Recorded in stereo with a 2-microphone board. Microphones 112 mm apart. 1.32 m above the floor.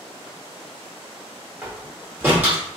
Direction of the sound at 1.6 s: 15° right (ahead or behind).